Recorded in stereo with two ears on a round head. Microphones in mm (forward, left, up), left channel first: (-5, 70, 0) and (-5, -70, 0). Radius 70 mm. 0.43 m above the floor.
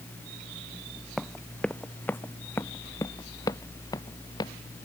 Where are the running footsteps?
Centre (ahead or behind); by 4.5 s 25° left (ahead or behind).